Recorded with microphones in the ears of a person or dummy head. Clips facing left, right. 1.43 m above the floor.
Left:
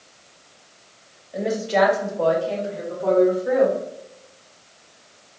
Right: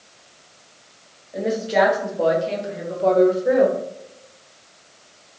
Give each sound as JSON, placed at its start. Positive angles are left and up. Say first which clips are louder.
{"t": 1.3, "sound": "a woman speaking", "louder": "right 1 dB", "side_deg": 0, "distance_m": 1.4}